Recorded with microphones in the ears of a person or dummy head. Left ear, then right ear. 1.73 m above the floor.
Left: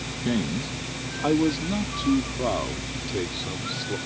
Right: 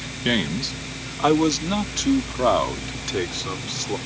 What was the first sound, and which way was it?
A man speaking, 70° right (ahead or behind).